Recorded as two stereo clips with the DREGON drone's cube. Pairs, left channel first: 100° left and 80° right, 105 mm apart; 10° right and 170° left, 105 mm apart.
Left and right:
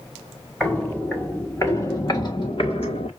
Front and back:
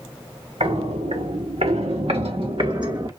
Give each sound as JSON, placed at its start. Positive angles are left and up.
{"t": 0.6, "sound": "footsteps", "azimuth_deg": 180, "distance_m": 1.9}